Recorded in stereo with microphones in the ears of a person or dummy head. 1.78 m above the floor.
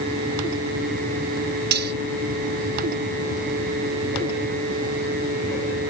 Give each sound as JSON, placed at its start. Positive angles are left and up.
{"t": 1.7, "sound": "cutlery clinking", "side_deg": -55}